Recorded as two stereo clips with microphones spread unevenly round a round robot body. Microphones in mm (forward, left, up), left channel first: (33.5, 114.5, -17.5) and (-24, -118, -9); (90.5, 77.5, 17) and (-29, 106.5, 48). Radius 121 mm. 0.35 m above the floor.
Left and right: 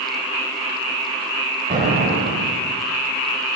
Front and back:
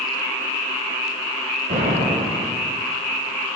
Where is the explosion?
160° right, 0.9 m.